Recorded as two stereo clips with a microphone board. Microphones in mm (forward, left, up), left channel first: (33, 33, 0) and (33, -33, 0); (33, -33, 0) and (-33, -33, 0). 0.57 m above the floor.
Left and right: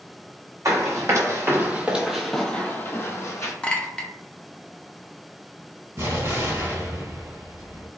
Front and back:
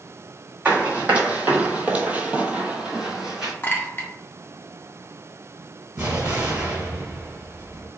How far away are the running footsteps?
About 1.1 m.